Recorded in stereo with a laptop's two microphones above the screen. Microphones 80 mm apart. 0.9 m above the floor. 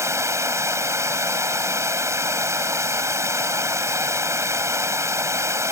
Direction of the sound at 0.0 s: 40° right (ahead or behind).